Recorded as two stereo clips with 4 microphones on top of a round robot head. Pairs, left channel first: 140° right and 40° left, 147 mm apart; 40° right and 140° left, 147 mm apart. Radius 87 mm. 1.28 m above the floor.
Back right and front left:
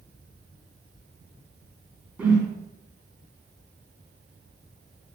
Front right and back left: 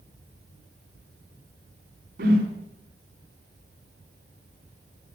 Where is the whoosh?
125° left, 1.6 m.